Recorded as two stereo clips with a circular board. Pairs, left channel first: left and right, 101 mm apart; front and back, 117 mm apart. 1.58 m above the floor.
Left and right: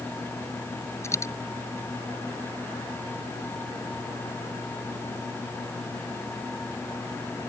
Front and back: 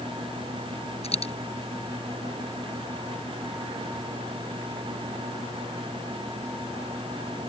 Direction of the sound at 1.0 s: 30° left.